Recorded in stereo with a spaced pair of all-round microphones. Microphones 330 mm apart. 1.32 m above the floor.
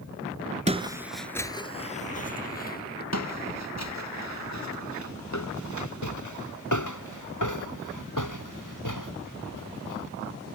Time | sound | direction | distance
0.7 | footsteps | 20° right (ahead or behind) | ?
3.1 | footsteps | 55° left (ahead or behind) | ?